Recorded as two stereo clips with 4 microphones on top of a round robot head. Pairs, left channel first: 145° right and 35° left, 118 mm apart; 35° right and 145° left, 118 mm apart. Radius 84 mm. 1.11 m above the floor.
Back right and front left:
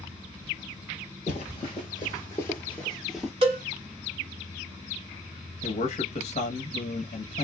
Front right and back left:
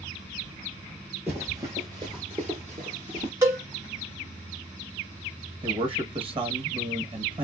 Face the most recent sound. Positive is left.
turn(degrees=-175)